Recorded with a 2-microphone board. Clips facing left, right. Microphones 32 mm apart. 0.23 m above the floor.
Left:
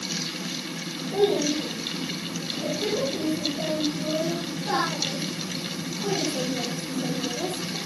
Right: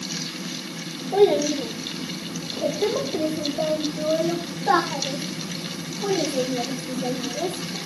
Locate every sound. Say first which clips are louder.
1.1 s a child speaking: right 5 dB; 85° right, 8.5 m; by 7.8 s 40° right (ahead or behind), 9.5 m